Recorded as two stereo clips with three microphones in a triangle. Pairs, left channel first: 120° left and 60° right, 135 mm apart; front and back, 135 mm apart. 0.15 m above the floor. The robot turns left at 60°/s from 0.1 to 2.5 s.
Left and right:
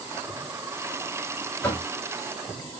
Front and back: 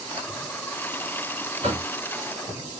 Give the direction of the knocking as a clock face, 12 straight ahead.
6 o'clock.